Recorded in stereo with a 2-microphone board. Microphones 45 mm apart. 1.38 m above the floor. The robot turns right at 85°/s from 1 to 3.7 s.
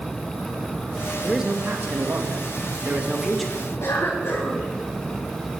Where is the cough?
70° left (ahead or behind), 5.5 m.